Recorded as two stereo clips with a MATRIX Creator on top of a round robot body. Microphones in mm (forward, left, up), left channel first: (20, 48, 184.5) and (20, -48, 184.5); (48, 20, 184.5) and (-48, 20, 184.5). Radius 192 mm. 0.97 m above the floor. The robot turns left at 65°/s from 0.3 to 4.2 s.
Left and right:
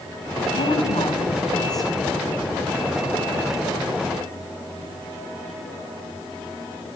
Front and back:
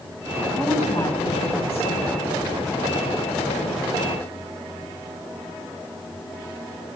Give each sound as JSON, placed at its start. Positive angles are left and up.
{"t": 0.5, "sound": "a woman speaking", "azimuth_deg": 85, "distance_m": 9.0}